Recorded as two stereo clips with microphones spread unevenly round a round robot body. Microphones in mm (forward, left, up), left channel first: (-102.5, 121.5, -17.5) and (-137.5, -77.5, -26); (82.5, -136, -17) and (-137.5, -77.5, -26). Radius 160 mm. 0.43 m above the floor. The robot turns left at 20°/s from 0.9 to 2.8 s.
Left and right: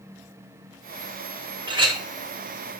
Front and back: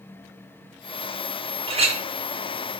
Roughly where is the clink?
Behind right.